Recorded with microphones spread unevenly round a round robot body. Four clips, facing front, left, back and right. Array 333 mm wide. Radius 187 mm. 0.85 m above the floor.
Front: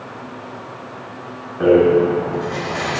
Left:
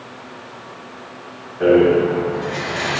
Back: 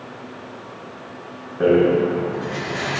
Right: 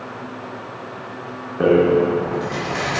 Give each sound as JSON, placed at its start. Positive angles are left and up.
{"t": 1.6, "sound": "a rattle", "azimuth_deg": -100, "distance_m": 1.5}